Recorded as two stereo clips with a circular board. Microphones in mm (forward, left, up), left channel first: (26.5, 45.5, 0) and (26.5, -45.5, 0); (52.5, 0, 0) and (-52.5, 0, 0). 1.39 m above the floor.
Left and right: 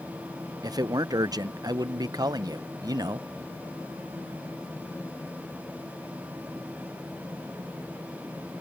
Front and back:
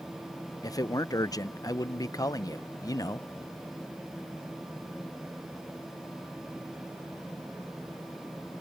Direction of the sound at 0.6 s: 50° right.